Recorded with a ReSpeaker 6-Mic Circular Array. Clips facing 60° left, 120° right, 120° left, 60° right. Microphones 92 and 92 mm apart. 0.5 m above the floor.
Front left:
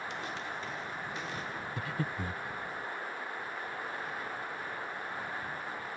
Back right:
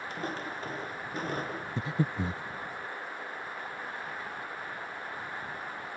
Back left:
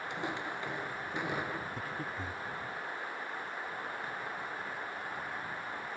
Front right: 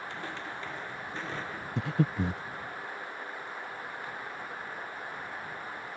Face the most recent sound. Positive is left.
turn(degrees=-55)